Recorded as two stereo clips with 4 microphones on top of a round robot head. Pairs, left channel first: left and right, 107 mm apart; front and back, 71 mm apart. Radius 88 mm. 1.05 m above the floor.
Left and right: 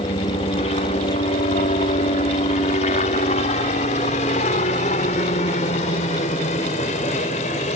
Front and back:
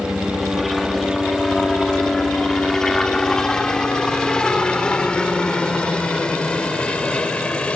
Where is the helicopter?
90° left; by 7.8 s 70° left.